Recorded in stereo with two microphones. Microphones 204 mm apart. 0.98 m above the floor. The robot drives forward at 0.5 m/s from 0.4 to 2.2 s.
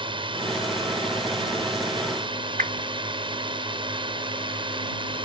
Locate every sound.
0.0 s a drone: 25° right (ahead or behind)
2.6 s a whoosh: 40° right (ahead or behind)